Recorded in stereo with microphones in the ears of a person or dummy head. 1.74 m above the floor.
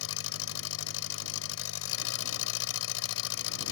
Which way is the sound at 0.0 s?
75° left (ahead or behind).